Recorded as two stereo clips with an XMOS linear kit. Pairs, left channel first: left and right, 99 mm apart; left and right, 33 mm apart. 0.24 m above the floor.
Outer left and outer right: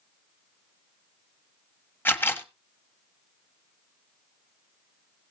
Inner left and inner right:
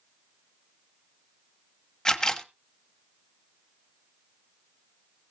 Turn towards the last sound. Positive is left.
turn(degrees=20)  # may be behind; listen again after turning